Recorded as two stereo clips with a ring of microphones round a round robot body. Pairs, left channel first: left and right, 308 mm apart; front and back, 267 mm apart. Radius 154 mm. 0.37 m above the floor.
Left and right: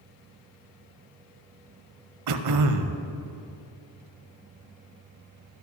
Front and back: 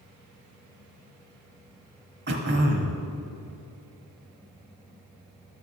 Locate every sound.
2.3 s throat clearing: 125° right, 0.8 m